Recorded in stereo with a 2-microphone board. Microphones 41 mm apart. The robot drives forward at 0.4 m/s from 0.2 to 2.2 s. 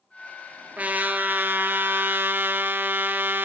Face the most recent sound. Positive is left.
turn(degrees=-60)  # may be behind; listen again after turning